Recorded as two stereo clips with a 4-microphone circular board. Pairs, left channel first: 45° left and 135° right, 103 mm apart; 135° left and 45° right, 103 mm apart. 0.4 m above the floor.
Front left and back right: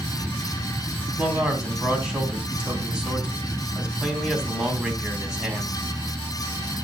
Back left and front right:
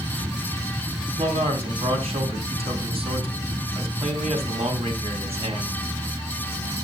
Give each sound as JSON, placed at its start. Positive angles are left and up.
{"t": 1.2, "sound": "a man speaking", "azimuth_deg": -55, "distance_m": 3.5}